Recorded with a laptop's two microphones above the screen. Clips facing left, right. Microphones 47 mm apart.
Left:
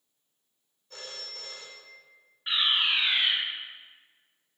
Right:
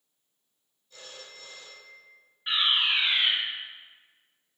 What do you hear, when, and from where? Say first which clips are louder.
0.9 s a phone ringing: left 3 dB; 75° left (ahead or behind), 2 m
2.5 s a fire alarm: right 1 dB; centre (ahead or behind), 2.5 m